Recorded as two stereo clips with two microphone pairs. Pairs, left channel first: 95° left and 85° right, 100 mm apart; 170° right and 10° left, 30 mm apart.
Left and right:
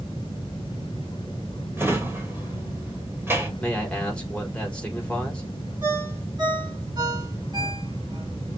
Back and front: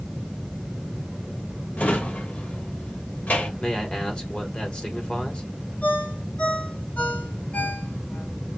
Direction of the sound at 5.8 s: 135° right.